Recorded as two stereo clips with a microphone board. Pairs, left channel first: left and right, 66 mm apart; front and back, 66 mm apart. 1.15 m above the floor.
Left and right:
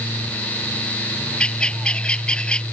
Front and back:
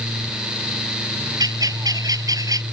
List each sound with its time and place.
1.4 s a bird: 165° left